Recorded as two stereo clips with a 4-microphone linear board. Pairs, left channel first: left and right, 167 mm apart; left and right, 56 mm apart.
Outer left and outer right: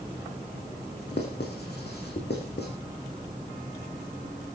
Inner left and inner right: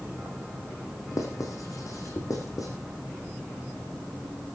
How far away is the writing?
About 5 m.